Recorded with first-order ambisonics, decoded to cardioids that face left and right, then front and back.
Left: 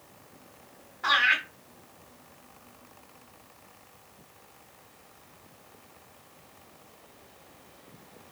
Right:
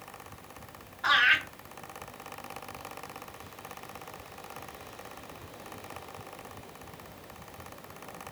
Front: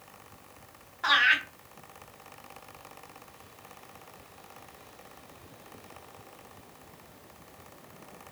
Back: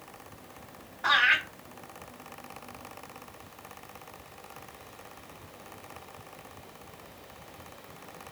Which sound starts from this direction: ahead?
Laughter, at 1.0 s.